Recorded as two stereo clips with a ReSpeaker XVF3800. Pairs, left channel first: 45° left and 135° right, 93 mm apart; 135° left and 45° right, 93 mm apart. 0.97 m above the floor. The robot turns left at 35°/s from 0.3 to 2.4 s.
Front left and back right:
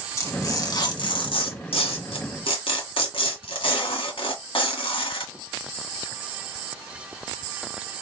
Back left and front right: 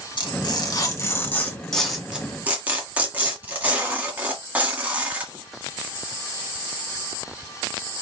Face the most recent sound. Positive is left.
turn(degrees=30)